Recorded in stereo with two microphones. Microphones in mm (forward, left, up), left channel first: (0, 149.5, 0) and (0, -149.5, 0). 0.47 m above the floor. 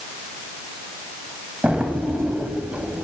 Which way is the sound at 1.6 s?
5° right (ahead or behind).